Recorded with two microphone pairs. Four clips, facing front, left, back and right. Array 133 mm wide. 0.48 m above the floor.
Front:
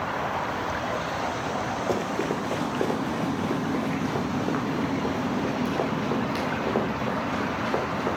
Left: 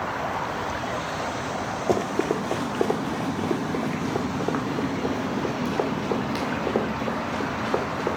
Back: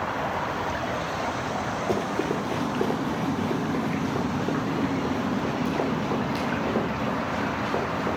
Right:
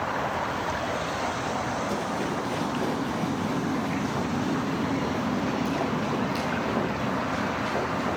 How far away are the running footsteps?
About 1.5 m.